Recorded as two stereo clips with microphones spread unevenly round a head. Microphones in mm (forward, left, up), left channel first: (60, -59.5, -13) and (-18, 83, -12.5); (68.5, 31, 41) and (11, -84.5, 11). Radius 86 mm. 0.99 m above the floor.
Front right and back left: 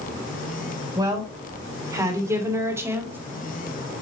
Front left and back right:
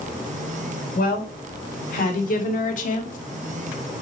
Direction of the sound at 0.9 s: 50° left.